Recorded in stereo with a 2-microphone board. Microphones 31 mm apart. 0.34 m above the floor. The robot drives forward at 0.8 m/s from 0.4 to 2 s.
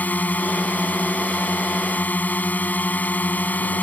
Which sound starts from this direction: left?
A drone, at 0.0 s.